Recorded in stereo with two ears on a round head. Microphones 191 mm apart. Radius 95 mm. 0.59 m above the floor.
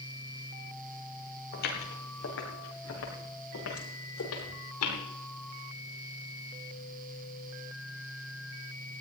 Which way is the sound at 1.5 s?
50° left (ahead or behind).